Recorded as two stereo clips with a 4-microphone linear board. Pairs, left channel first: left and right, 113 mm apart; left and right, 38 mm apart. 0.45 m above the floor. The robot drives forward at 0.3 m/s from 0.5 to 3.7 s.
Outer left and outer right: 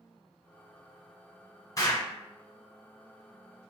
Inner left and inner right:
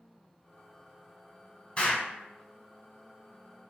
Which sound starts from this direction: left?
An explosion, at 1.8 s.